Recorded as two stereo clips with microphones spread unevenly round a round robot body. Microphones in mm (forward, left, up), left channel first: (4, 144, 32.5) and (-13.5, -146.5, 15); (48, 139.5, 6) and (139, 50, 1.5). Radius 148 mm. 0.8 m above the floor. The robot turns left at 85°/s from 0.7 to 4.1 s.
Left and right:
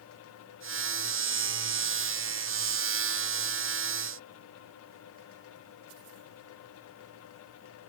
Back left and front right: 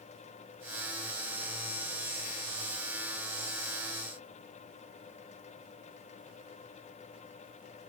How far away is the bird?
I don't hear a bird.